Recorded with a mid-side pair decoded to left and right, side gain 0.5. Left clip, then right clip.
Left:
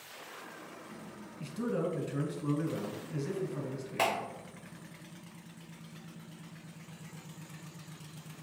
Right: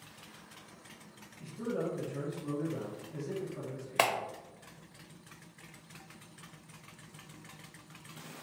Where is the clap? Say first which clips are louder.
Right 2 dB; 60° right, 0.7 m.